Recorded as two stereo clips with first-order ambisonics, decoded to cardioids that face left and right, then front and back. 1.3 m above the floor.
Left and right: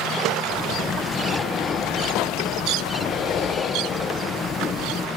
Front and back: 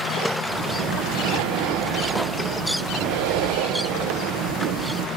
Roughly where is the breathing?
Behind left.